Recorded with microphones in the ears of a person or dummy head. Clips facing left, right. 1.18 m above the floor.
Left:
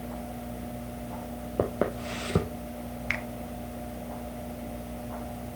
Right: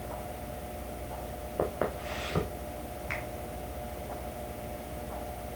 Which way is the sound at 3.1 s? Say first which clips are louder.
Left 2 dB; 60° left (ahead or behind).